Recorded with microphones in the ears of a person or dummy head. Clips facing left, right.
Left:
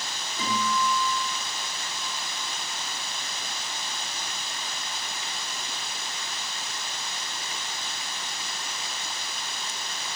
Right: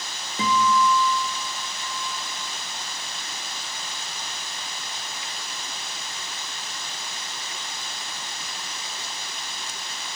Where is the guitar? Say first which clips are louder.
Right 6 dB; 55° right (ahead or behind), 0.9 m.